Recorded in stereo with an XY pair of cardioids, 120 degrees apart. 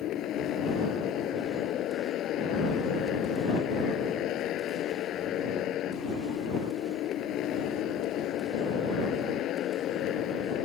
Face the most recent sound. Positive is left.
turn(degrees=65)